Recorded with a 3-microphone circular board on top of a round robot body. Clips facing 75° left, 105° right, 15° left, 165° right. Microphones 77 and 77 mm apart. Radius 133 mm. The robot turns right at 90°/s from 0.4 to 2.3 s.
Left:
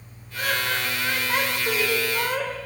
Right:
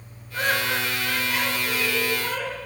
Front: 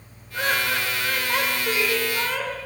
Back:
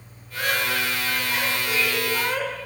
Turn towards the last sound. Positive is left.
turn(degrees=120)